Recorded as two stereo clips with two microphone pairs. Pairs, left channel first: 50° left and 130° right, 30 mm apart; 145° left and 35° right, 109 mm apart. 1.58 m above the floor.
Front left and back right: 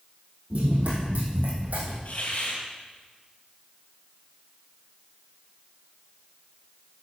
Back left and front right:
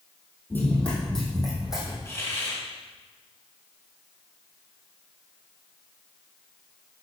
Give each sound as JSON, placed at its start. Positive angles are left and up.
{"t": 0.5, "sound": "running footsteps", "azimuth_deg": -145, "distance_m": 3.0}
{"t": 2.0, "sound": "a hiss", "azimuth_deg": 80, "distance_m": 3.0}